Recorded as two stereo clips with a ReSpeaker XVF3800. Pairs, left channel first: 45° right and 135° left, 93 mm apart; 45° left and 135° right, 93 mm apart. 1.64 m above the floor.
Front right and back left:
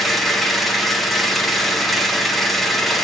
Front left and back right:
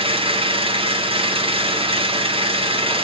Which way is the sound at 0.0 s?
135° right.